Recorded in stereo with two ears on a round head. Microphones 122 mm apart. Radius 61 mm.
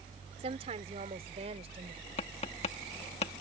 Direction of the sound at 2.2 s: 45° left (ahead or behind).